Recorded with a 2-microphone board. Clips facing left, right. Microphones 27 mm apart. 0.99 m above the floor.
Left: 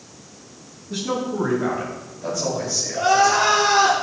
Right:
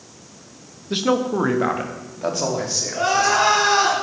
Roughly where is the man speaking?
Right.